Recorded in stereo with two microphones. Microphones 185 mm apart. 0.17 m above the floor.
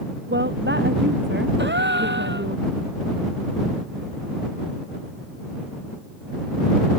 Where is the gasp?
75° right (ahead or behind).